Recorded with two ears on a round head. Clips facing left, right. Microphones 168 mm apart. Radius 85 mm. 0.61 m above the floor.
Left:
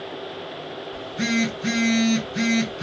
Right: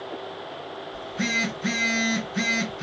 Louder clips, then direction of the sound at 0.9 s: Left 6 dB; 35° left (ahead or behind).